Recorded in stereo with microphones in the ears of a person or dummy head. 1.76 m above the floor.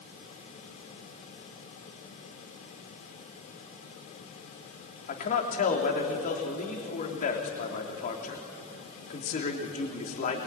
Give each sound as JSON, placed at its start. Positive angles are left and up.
{"t": 5.1, "sound": "a man speaking", "side_deg": 45, "distance_m": 3.0}